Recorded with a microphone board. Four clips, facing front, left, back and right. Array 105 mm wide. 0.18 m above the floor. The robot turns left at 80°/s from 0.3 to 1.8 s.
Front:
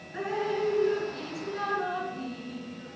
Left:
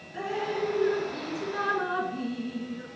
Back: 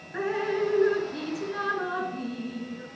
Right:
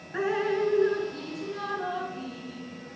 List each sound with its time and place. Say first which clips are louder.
0.1 s dripping: right 4 dB, back 2 dB; 115° right, 1.6 m; by 2.9 s 125° left, 1.6 m